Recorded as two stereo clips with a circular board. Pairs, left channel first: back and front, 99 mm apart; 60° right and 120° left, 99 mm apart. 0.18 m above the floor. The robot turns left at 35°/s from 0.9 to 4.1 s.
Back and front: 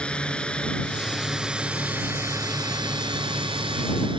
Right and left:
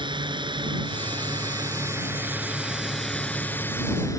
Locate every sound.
0.0 s a drone: 100° left; by 4.2 s 10° right